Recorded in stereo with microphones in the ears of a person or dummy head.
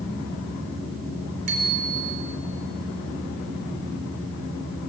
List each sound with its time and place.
1.5 s a bicycle bell: 50° right (ahead or behind), 4 m